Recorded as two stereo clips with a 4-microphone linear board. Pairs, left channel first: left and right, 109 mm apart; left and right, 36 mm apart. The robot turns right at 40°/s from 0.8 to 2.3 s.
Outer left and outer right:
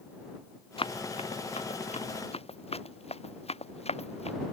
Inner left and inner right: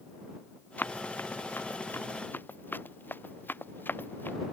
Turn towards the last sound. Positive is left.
turn(degrees=75)  # may be behind; listen again after turning